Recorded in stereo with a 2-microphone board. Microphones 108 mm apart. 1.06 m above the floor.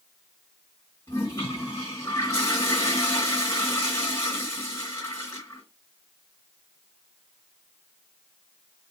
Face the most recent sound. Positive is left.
turn(degrees=30)  # may be behind; listen again after turning